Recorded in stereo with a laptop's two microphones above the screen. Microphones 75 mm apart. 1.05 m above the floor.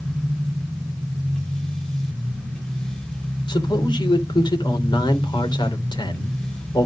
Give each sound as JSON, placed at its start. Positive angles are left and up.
{"t": 0.0, "sound": "a machine running", "side_deg": 15, "distance_m": 1.7}
{"t": 3.5, "sound": "a man speaking", "side_deg": 80, "distance_m": 3.5}